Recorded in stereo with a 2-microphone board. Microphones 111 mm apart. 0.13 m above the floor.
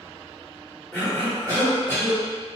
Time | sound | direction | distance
0.9 | a cough | 5° left (ahead or behind) | 1.8 m